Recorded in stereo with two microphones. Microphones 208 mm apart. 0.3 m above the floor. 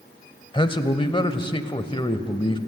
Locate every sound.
0.5 s a man speaking: 25° left (ahead or behind), 1.0 m